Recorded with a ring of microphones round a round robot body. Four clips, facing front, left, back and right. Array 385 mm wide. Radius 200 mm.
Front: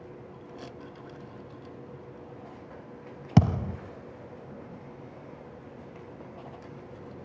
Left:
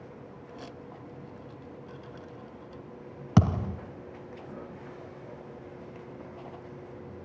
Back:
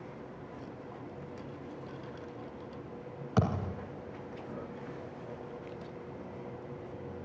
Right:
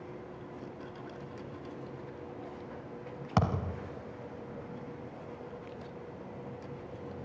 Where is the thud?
30° left, 1.3 m.